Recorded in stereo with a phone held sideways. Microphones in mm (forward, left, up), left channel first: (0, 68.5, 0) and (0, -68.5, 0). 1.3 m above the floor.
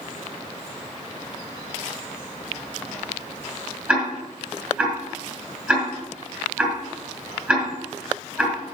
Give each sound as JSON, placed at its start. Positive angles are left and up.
{"t": 3.9, "sound": "ticking", "side_deg": -10, "distance_m": 4.0}